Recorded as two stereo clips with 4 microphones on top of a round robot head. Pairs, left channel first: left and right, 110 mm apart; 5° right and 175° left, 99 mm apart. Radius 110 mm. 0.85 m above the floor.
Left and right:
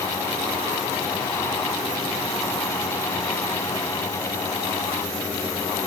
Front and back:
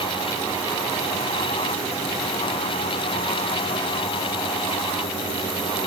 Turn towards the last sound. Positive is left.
No sound to turn to.